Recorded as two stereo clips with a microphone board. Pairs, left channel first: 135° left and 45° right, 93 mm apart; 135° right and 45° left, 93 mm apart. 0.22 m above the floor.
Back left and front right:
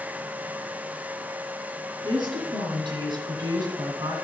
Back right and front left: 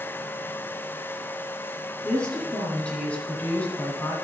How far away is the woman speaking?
About 3 m.